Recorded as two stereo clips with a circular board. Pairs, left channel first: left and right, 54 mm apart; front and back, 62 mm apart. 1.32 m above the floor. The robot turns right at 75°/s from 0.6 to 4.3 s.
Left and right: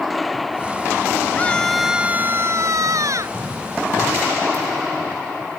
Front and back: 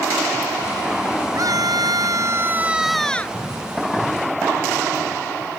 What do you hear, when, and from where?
1.4 s a scream: 150° left; by 3.4 s 60° right